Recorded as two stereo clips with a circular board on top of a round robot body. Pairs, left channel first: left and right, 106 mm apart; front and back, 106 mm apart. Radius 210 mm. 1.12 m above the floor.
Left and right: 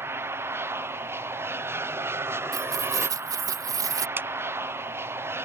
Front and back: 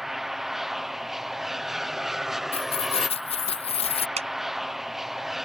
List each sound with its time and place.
0.0 s an aircraft: 95° right
2.5 s keys jangling: 30° right
4.2 s a clap: 160° right